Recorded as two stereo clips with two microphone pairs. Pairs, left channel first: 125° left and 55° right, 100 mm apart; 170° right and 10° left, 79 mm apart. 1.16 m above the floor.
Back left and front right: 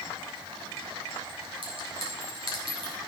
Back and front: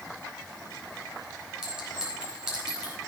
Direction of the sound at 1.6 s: 70° right.